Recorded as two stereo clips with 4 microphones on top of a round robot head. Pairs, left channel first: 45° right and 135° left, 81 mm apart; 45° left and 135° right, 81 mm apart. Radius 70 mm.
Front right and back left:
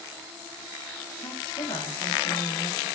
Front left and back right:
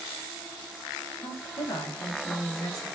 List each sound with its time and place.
1.2 s a woman speaking: 5° right, 7.5 m; by 2.9 s straight ahead, 7 m